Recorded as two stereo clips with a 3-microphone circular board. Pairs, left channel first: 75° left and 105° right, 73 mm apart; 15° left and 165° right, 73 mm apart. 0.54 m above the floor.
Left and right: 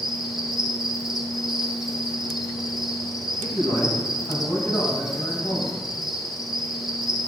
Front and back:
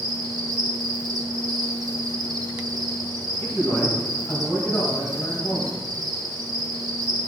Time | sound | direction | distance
0.0 | an insect | 170° left | 0.8 m
3.4 | a man speaking | 75° left | 2.5 m